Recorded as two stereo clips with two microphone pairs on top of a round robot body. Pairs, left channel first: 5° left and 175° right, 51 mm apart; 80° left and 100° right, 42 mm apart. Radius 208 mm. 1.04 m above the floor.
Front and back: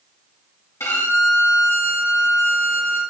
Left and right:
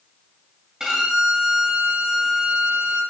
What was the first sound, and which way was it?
A violin, 20° right.